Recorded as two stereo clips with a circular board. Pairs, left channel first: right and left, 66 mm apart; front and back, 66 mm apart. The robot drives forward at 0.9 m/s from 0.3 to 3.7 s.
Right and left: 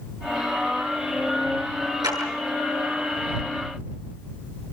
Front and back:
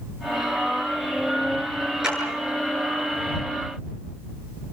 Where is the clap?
100° left, 9 m.